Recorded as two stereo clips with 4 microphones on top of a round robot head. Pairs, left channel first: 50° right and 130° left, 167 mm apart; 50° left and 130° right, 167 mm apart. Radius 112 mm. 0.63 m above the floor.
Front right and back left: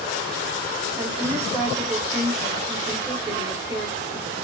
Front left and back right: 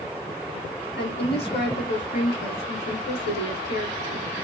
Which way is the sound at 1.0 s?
55° left.